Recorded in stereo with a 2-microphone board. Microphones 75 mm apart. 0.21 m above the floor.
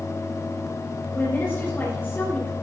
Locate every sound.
1.1 s a woman speaking: 25° left (ahead or behind), 5 m